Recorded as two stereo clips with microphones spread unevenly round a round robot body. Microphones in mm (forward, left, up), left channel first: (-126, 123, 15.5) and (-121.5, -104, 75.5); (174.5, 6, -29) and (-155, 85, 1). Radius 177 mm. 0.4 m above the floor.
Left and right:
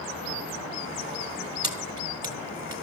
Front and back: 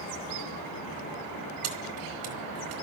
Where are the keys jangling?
165° right, 4 m.